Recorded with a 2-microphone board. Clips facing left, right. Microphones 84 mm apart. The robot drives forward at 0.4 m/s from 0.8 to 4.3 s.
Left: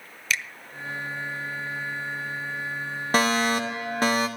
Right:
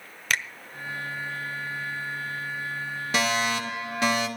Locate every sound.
0.3 s a finger snap: 50° right (ahead or behind), 1.1 m
3.1 s a fire alarm: 40° left (ahead or behind), 2.5 m